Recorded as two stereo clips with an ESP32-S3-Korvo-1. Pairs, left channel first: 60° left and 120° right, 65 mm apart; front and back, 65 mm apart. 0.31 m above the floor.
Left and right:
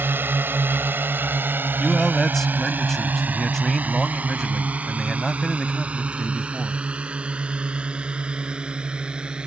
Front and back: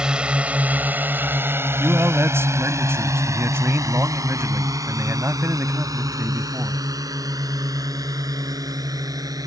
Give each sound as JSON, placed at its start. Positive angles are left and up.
{"t": 0.0, "sound": "a drone", "azimuth_deg": -115}
{"t": 1.8, "sound": "a man speaking", "azimuth_deg": 145}